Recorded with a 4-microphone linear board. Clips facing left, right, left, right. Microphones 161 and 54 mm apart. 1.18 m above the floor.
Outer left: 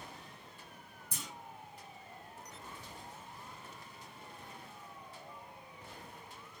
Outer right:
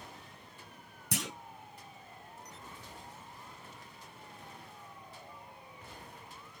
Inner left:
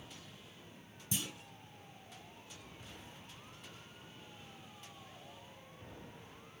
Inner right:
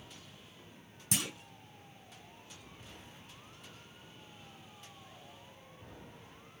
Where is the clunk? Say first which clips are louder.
Outer right 11 dB, inner right 4 dB; 75° right (ahead or behind), 0.7 m.